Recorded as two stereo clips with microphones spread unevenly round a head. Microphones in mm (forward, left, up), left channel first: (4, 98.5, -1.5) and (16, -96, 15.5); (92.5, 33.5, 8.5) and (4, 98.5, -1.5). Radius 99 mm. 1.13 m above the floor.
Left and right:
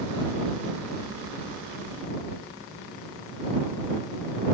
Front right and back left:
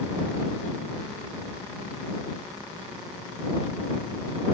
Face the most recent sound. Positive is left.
No sound to turn to.